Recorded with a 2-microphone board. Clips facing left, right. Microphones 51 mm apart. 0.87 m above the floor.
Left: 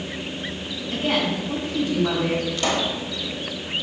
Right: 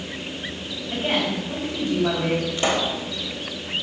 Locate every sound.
0.9 s a woman speaking: 25° right (ahead or behind), 4.5 m
2.6 s a pop: 20° right (ahead or behind), 1.0 m